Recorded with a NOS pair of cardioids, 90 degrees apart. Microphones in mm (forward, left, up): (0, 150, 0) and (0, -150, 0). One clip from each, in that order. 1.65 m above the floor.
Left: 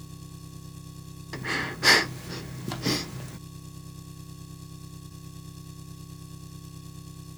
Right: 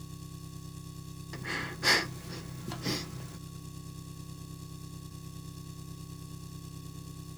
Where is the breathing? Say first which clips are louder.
Left 6 dB; 40° left.